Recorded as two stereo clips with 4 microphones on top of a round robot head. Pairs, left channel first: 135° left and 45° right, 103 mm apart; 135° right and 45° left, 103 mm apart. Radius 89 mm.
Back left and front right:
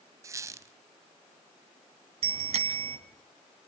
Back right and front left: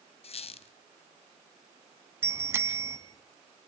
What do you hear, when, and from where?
0.2 s a squeak: 105° right, 0.8 m
2.2 s a bicycle bell: 25° right, 3 m